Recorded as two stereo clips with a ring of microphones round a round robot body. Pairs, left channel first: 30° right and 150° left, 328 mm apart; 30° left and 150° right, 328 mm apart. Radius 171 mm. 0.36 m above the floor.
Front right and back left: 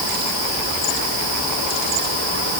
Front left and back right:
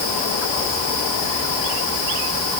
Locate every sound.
Only background noise.